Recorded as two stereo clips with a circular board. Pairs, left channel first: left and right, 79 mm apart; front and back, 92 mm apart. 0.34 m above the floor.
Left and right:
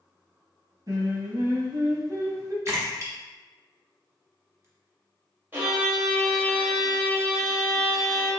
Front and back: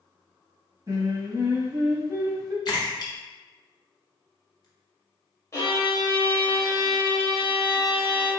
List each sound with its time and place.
0.9 s singing: 130° right, 0.8 m
2.6 s a splash: 35° right, 1.1 m
5.5 s a violin: 40° right, 1.2 m